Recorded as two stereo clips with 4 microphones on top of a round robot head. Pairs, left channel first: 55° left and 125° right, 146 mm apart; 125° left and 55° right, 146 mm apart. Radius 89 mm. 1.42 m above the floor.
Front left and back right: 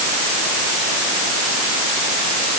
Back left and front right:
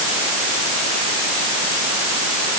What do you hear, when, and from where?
Only background noise.